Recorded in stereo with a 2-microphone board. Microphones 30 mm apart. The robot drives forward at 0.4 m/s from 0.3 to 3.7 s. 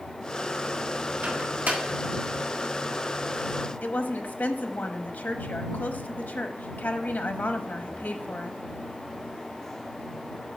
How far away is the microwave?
About 1.6 m.